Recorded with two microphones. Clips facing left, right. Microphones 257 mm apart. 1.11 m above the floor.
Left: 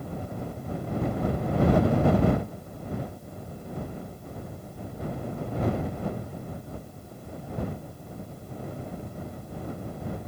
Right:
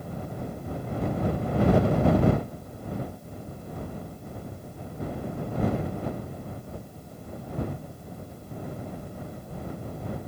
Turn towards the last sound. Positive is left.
No sound to turn to.